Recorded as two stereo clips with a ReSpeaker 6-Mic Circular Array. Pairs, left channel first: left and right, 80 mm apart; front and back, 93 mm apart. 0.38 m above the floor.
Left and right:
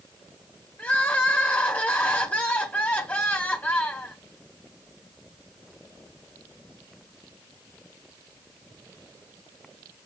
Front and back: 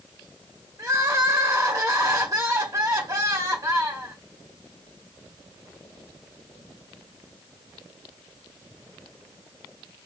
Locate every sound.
0.8 s crying: 145° left, 1.1 m